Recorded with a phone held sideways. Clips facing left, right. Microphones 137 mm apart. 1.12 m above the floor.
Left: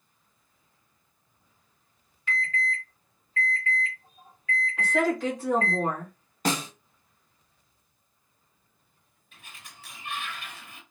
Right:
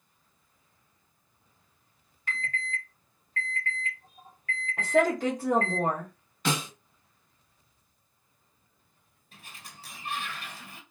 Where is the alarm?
45° right (ahead or behind), 1.5 m.